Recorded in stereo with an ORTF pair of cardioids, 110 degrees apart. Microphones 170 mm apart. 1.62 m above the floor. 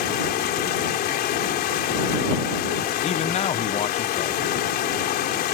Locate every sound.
0.0 s running water: 70° left
3.0 s a man speaking: 40° left